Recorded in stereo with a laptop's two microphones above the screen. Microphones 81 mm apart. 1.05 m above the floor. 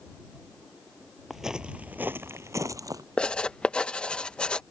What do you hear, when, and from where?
1.3 s footsteps: centre (ahead or behind); by 3.0 s 50° right (ahead or behind)
3.2 s writing: 15° left (ahead or behind)